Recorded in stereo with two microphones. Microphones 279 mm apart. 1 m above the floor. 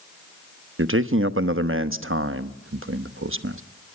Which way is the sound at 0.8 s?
45° right (ahead or behind).